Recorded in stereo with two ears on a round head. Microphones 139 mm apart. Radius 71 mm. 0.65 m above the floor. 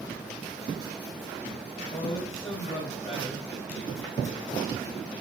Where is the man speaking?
25° left (ahead or behind), 4.5 m.